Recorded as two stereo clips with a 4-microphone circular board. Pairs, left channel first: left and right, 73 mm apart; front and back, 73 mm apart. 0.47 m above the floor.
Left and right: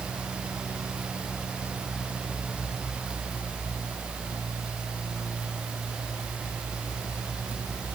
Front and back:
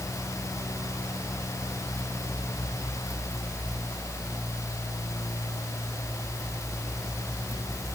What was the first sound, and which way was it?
Only background noise.